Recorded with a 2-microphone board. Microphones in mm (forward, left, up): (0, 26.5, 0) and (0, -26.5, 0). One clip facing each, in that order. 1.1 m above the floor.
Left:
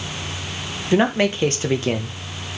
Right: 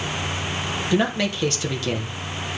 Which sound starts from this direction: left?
A man speaking, at 0.9 s.